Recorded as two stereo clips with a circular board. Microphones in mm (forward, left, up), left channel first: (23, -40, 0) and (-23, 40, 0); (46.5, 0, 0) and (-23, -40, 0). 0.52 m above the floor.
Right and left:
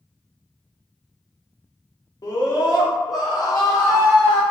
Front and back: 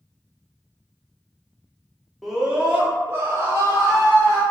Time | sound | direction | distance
2.2 | a scream | 60° right | 0.8 m